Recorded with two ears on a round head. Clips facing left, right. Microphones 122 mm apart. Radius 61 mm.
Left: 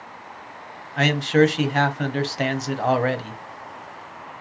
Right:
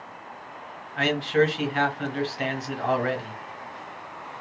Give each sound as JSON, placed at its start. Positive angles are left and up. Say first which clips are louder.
{"t": 1.0, "sound": "a man speaking", "louder": "left 4 dB", "side_deg": 55, "distance_m": 0.6}